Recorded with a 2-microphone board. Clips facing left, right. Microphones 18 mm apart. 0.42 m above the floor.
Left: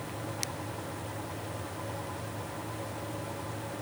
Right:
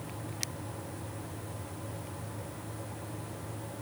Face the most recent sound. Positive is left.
No sound to turn to.